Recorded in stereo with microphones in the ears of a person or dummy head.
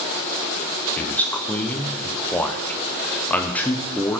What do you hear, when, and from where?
1.0 s a man speaking: 10° left (ahead or behind), 1.0 m